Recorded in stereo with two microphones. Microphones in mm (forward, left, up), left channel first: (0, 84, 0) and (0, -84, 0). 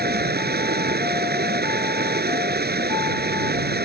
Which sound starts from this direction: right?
Running water, at 0.0 s.